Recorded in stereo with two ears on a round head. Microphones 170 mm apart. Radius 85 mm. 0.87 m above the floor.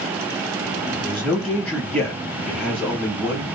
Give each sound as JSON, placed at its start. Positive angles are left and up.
{"t": 1.0, "sound": "a man speaking", "side_deg": -5, "distance_m": 1.0}